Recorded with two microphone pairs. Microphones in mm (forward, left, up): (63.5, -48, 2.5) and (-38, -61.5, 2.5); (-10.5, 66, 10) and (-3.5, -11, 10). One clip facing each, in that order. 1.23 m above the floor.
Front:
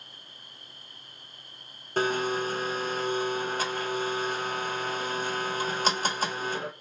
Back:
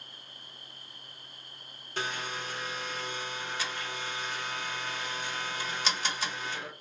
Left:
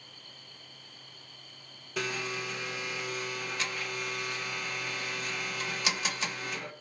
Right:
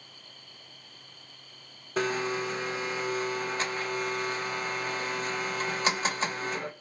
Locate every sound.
2.0 s a blender: 35° right, 1.1 m